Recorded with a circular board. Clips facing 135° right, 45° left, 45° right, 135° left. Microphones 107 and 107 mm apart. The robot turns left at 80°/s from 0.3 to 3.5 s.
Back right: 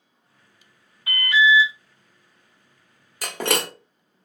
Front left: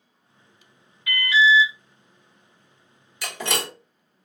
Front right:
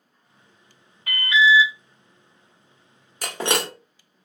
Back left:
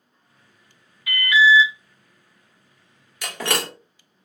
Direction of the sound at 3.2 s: 90° right.